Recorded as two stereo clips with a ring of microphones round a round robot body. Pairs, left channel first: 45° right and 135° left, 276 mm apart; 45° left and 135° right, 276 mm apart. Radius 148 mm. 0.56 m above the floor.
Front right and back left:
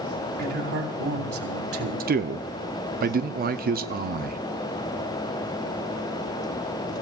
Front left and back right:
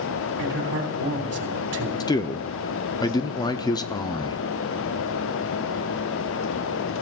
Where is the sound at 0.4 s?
175° left, 3.5 m.